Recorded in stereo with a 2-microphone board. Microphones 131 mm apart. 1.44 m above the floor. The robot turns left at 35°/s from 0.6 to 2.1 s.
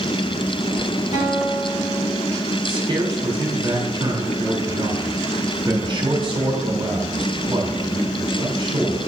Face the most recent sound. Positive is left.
turn(degrees=-40)  # may be behind; listen again after turning